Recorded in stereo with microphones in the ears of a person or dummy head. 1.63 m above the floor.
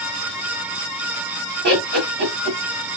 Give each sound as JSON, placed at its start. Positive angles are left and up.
{"t": 1.6, "sound": "laughter", "side_deg": -65, "distance_m": 1.8}